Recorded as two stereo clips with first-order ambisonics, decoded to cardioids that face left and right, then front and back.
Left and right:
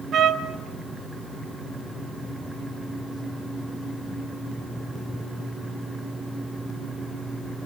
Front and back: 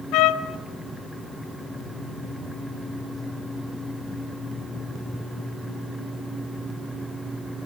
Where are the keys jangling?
No keys jangling in this recording.